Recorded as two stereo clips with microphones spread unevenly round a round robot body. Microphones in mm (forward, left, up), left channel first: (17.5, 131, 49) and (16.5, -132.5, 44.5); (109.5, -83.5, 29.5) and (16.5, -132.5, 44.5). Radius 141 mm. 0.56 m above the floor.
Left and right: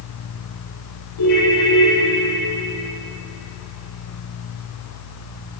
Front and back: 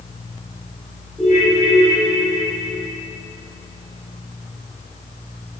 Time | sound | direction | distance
1.2 | a ringtone | 115° left | 10 m